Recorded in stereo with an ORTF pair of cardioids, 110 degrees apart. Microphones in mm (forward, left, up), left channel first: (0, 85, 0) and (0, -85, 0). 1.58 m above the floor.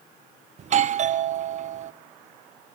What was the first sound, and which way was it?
A doorbell, 40° right.